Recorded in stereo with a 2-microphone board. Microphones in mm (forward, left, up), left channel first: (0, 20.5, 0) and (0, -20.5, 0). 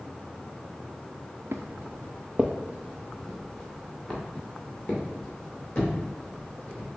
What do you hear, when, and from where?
1.5 s footsteps: 80° right, 0.5 m; by 6.9 s 15° left (ahead or behind), 3.5 m